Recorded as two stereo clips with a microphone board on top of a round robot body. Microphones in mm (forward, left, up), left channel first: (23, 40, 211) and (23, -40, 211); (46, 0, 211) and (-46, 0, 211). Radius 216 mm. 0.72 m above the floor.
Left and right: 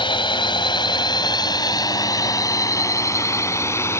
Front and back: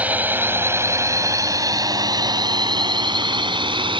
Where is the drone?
105° left; by 4.0 s 150° left.